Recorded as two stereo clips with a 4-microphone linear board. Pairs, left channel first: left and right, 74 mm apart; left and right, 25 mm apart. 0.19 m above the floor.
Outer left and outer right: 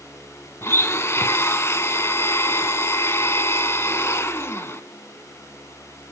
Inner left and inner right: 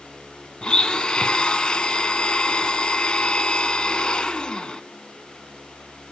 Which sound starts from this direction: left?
A blender, at 0.6 s.